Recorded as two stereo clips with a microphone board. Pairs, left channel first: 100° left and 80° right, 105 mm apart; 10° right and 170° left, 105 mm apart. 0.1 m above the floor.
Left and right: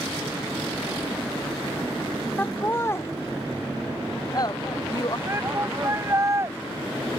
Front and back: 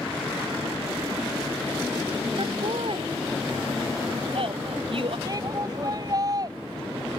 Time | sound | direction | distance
2.4 | laughter | 170° left | ?
5.3 | a shout | 140° right | ?